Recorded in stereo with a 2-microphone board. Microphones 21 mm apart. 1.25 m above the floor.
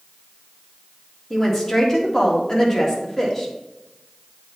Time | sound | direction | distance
1.3 | a woman speaking | 25° left (ahead or behind) | 2 m